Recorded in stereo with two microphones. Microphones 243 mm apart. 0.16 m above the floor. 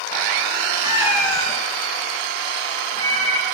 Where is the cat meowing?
25° right (ahead or behind), 1.1 m; by 3.5 s 75° left (ahead or behind), 3 m.